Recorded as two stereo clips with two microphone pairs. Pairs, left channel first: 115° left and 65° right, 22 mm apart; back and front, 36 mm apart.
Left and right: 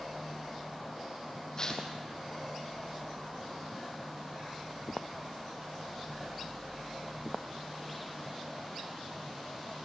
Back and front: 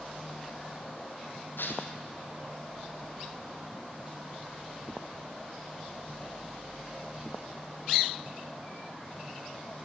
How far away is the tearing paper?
About 2.5 m.